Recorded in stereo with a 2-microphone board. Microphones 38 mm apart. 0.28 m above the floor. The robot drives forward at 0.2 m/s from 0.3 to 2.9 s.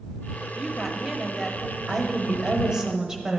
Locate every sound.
0.6 s a woman speaking: centre (ahead or behind), 1.0 m
1.9 s a woman speaking: 15° right (ahead or behind), 1.0 m